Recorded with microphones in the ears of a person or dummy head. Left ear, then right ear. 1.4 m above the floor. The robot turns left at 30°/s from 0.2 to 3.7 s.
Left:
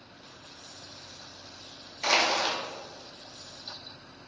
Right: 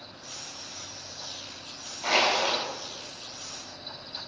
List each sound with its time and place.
2.0 s crushing: 70° left (ahead or behind), 3.5 m; by 2.6 s 55° left (ahead or behind), 3.5 m